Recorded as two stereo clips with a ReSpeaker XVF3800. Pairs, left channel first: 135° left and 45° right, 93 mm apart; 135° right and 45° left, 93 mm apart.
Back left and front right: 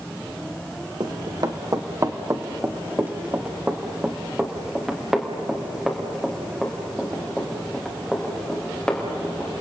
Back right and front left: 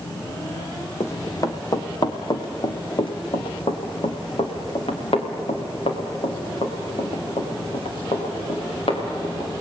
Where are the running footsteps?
80° right, 2.0 m; by 9.5 s 145° right, 6 m.